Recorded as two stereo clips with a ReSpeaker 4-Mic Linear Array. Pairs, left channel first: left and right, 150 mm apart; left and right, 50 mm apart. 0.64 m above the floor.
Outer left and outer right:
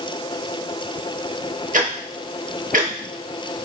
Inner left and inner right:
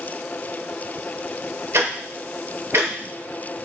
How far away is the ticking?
About 0.6 m.